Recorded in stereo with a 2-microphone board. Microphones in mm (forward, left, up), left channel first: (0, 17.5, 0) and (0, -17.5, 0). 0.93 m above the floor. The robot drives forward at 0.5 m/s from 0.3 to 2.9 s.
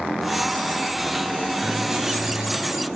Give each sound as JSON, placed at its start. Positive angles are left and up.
{"t": 1.6, "sound": "writing", "side_deg": -15, "distance_m": 4.5}